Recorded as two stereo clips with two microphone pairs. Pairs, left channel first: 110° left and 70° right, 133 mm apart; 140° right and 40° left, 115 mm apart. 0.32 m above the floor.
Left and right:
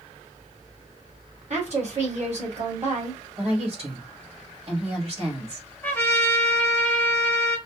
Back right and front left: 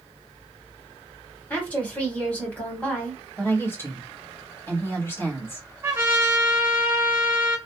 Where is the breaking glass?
I don't hear breaking glass.